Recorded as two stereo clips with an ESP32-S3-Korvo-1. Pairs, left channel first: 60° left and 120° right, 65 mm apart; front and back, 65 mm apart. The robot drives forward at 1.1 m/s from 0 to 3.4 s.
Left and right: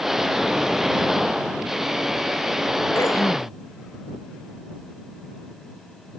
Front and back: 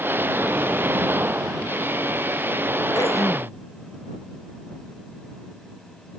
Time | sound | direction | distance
3.0 | throat clearing | 20° left | ?